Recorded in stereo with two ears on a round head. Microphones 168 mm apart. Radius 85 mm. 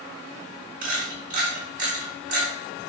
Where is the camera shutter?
45° right (ahead or behind), 1.8 m.